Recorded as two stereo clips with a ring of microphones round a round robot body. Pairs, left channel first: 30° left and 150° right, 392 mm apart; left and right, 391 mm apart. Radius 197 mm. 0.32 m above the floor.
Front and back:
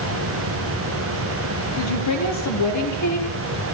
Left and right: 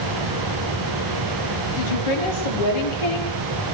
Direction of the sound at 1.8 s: 80° left.